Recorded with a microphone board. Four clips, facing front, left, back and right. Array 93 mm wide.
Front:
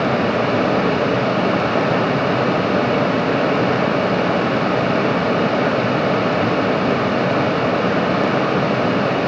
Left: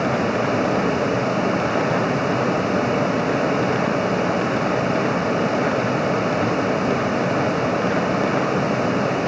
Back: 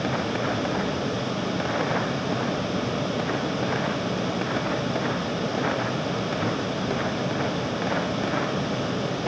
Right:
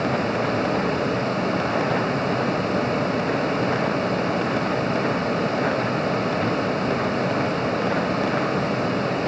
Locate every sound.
Only background noise.